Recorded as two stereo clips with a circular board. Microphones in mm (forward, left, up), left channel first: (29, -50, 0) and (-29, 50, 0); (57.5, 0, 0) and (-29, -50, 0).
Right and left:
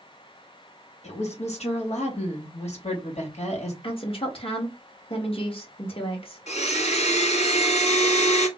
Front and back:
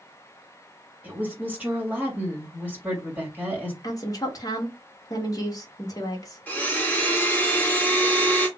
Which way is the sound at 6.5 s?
45° right.